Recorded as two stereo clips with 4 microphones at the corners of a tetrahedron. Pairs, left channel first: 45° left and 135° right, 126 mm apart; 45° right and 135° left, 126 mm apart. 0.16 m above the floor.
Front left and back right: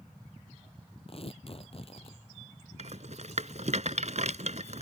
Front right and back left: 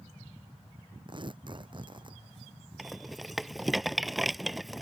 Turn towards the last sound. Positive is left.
turn(degrees=-135)